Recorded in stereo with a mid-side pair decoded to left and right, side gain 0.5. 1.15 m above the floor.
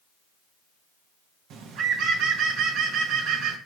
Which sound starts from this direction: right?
A bird, at 1.5 s.